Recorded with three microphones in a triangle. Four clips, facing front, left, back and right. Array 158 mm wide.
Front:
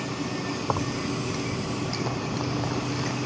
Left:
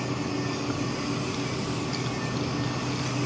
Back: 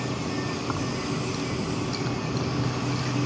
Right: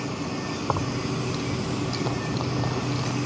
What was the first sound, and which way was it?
Keys jangling, 50° right.